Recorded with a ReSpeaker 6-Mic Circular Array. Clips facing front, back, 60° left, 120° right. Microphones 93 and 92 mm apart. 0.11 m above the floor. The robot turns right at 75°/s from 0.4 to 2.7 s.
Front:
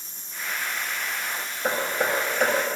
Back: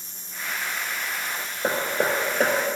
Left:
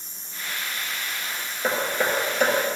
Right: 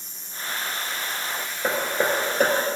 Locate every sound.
1.6 s hammering: 155° left, 1.2 m; by 2.5 s 140° right, 1.2 m